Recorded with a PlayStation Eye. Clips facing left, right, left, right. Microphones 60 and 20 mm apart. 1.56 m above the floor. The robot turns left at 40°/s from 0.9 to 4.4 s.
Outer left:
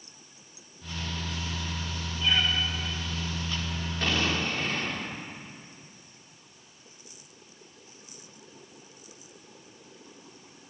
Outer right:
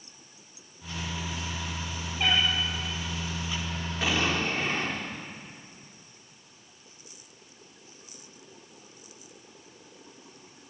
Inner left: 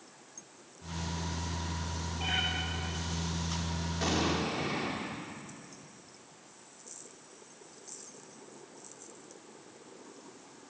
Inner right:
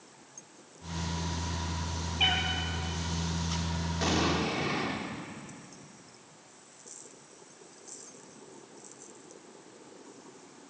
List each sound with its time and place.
2.2 s a cat meowing: 75° right (ahead or behind), 6 m; by 2.4 s 70° right (ahead or behind), 6 m
4.0 s an explosion: 5° right (ahead or behind), 3 m; by 5.1 s 20° right (ahead or behind), 3 m